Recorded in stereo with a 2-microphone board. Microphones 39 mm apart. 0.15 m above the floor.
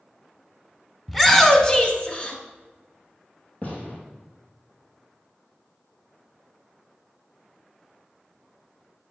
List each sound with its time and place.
1.1 s a shout: centre (ahead or behind), 1.1 m; by 2.4 s 35° left (ahead or behind), 1.6 m
3.6 s a gunshot: 40° left (ahead or behind), 2.5 m